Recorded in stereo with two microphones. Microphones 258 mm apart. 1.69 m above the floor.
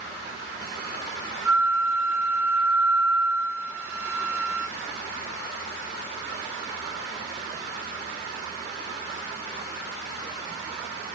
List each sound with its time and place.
1.4 s a flute: 55° left (ahead or behind), 1.1 m